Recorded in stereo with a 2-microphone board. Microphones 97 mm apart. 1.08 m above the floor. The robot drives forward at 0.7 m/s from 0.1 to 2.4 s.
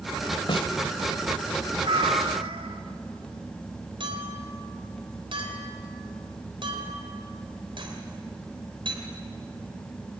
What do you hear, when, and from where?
0.5 s a snare drum: 60° left (ahead or behind), 1.3 m
1.8 s a cat meowing: 70° right (ahead or behind), 1.4 m
4.0 s a clink: 60° right (ahead or behind), 3.5 m